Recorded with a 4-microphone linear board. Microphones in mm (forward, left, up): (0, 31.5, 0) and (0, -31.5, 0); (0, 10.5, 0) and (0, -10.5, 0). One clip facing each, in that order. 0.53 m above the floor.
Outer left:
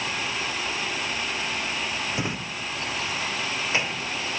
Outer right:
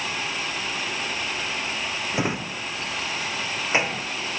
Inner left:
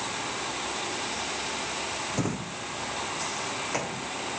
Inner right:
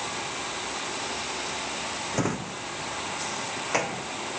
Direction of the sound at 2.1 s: 25° right (ahead or behind).